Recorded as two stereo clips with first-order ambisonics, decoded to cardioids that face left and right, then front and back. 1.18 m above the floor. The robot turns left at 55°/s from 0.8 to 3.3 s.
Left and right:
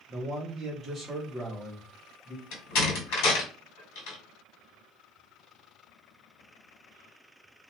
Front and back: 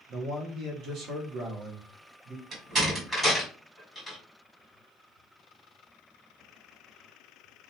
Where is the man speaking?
150° right, 0.9 m; by 2.4 s 120° left, 0.9 m.